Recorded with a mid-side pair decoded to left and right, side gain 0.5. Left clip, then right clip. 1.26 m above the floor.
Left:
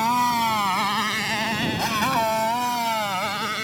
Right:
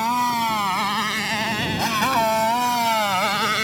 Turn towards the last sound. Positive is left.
turn(degrees=-40)